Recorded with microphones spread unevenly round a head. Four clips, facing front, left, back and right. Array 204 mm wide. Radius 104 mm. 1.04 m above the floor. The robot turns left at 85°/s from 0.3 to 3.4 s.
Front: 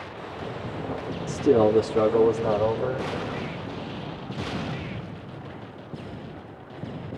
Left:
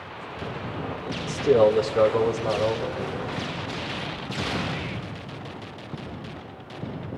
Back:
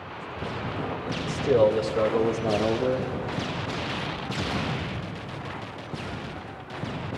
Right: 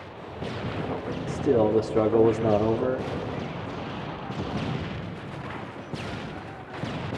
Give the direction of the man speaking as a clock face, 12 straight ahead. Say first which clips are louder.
Left 3 dB, front 2 dB; 12 o'clock.